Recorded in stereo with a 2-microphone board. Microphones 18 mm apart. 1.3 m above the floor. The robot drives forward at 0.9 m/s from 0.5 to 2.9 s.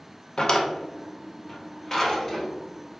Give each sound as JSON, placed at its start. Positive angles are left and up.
{"t": 0.4, "sound": "a drawer", "side_deg": 45, "distance_m": 0.6}